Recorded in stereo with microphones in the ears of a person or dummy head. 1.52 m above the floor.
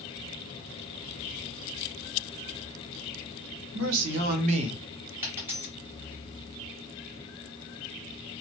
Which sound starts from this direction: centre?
A dropped coin, at 5.2 s.